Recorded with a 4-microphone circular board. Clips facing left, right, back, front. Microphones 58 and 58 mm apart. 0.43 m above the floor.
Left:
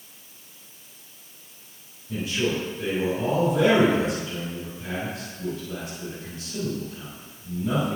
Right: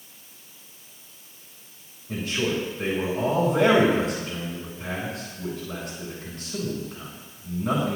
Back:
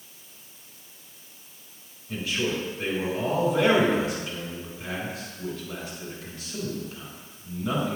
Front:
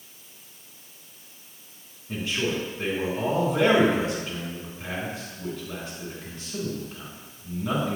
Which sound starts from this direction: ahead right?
A man speaking, at 2.1 s.